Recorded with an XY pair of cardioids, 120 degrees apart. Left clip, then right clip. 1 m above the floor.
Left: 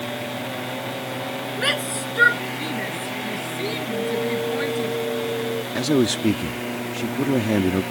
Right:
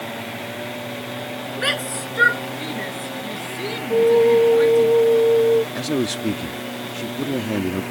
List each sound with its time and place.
1.6 s a shout: 10° right; by 4.9 s straight ahead
3.9 s a flute: 65° right
5.8 s a man speaking: 15° left